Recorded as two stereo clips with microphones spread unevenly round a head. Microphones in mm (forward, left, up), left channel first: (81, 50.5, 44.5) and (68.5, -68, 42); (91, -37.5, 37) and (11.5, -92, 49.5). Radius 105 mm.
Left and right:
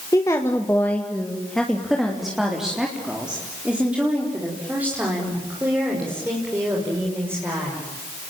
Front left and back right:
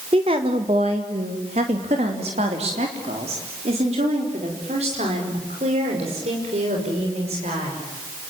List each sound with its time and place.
0.1 s a woman speaking: 155° left, 1.7 m; by 7.8 s 175° right, 7 m